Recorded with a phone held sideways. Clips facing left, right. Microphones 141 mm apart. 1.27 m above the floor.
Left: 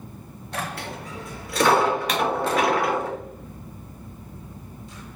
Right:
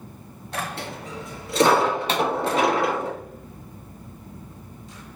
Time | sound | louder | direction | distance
0.8 | a dropped coin | right 1 dB | 25° right (ahead or behind) | 3 m
2.1 | a pop | right 1 dB | 30° right (ahead or behind) | 2 m